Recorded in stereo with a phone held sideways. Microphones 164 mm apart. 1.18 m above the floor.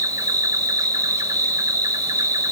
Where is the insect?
20° right (ahead or behind), 0.7 m.